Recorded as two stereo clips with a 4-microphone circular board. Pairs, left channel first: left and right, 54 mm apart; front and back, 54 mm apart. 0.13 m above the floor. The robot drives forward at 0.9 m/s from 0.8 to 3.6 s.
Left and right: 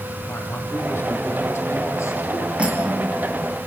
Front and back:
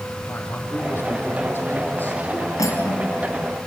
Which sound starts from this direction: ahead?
Cutlery clinking, at 2.6 s.